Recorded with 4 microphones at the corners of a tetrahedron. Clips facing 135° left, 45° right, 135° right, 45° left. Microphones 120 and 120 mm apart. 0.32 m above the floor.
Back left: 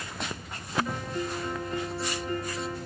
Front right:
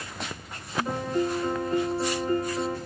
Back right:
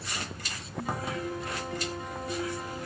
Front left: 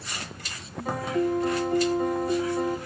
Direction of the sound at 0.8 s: 5° left.